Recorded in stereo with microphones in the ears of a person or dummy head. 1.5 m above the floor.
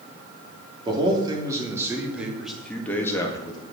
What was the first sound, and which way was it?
A man speaking, 25° right (ahead or behind).